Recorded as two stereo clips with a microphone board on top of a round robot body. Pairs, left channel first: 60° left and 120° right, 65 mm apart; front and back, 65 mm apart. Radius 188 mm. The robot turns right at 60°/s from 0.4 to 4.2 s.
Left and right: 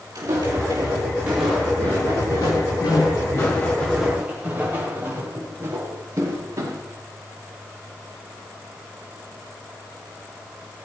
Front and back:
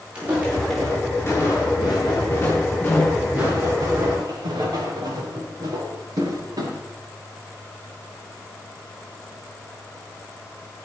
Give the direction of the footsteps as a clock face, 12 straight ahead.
4 o'clock.